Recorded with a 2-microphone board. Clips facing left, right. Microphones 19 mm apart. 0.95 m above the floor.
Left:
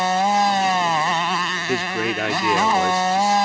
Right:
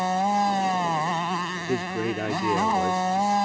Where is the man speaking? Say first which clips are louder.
Left 5 dB; 60° left (ahead or behind).